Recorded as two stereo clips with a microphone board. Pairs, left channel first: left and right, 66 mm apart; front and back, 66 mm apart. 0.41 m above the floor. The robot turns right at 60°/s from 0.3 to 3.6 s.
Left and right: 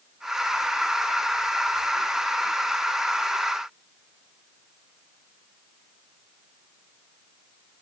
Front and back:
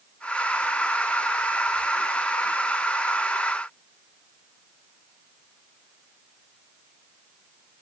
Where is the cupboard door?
I don't hear a cupboard door.